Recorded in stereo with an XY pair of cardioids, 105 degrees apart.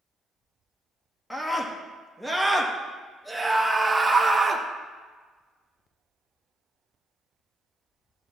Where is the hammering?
No hammering in this recording.